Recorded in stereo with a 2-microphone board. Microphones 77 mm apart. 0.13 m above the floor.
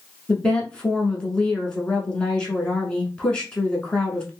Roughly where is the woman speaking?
Centre.